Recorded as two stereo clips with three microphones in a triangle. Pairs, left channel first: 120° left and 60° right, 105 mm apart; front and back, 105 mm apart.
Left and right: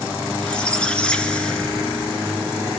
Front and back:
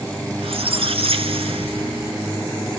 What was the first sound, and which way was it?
A squeak, 160° right.